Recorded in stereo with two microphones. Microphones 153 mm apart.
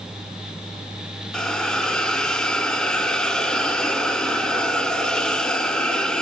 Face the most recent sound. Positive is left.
turn(degrees=5)  # may be behind; listen again after turning